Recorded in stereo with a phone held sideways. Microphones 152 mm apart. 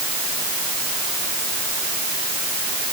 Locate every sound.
Only background noise.